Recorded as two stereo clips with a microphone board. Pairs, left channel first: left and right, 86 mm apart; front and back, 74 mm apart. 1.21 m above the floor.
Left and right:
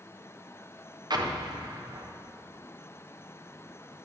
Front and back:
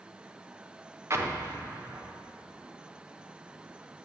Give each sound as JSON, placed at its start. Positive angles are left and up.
{"t": 1.1, "sound": "an explosion", "azimuth_deg": -125, "distance_m": 0.7}